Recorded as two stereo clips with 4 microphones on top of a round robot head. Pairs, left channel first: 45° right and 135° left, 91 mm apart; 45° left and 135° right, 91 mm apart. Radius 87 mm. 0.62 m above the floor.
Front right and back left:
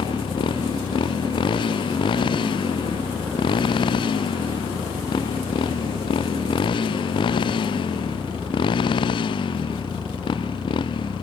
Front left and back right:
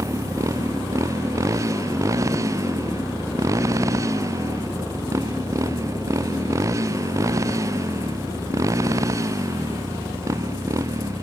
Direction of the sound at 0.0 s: 80° right.